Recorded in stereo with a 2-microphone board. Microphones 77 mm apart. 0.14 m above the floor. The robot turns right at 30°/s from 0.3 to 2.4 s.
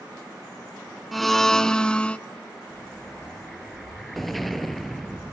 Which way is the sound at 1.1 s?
Centre (ahead or behind).